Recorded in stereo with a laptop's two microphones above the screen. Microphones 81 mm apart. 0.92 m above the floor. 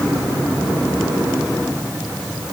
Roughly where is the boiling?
I don't hear boiling.